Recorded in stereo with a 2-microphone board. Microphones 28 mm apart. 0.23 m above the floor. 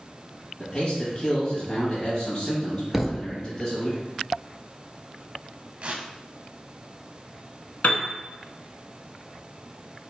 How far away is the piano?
About 0.8 m.